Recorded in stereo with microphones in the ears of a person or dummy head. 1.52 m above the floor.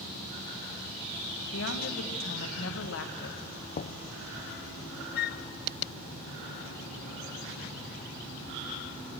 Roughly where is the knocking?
Left.